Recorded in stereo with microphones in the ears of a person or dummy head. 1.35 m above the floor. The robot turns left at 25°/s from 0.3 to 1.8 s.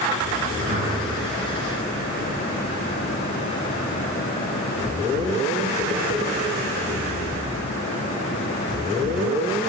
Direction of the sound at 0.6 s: 15° right (ahead or behind).